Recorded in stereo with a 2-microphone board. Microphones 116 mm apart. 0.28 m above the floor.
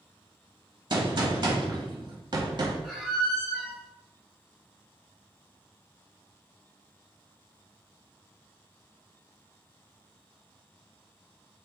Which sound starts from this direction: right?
A gunshot, at 0.9 s.